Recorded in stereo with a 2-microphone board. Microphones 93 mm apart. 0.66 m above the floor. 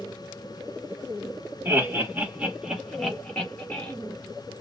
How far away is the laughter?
About 1.5 m.